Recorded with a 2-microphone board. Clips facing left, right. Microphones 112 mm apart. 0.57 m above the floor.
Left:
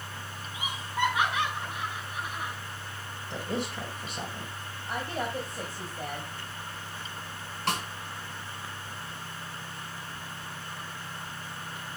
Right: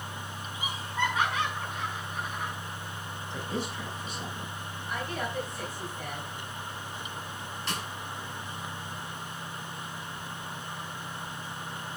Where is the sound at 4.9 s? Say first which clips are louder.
Left 2 dB; 35° left (ahead or behind), 3.5 m.